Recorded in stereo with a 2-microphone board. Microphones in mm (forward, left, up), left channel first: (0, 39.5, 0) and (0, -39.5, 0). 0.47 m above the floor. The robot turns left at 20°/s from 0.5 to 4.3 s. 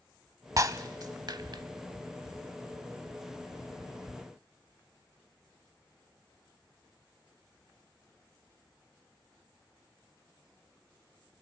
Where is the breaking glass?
40° right (ahead or behind), 0.7 m; by 1.6 s 60° right (ahead or behind), 0.7 m.